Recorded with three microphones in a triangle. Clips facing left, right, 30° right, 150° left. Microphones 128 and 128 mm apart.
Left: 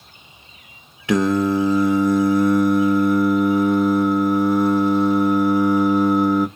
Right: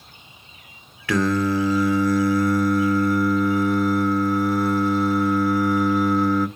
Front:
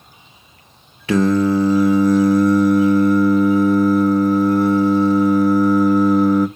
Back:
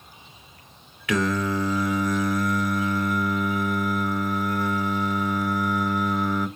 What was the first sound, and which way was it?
Singing, 25° left.